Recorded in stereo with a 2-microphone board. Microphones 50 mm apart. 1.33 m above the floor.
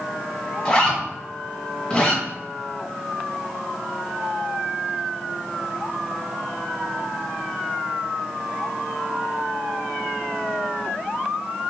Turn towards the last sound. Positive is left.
turn(degrees=20)  # may be behind; listen again after turning